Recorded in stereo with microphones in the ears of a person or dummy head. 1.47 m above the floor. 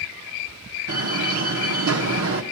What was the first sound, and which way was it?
A door slam, 65° right (ahead or behind).